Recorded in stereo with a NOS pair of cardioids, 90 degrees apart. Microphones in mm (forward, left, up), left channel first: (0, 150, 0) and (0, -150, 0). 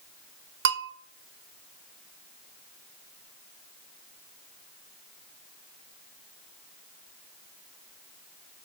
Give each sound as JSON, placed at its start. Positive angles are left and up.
{"t": 0.7, "sound": "a bell", "azimuth_deg": -40, "distance_m": 0.5}